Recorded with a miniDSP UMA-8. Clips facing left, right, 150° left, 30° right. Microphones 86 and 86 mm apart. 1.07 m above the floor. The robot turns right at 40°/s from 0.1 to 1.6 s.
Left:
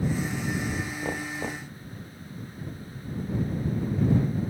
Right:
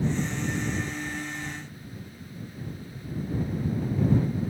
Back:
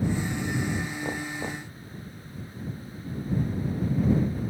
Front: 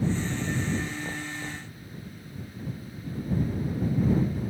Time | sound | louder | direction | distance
1.0 | knocking | left 3 dB, back 3 dB | 85° left | ?